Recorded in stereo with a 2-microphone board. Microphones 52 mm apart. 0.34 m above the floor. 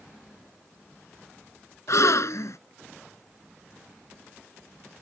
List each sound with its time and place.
1.9 s a gasp: 75° left (ahead or behind)